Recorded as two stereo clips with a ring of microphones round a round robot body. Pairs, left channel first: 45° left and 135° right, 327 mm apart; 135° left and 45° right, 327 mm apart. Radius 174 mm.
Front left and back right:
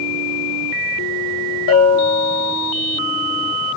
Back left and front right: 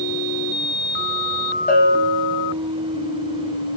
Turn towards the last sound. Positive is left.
turn(degrees=75)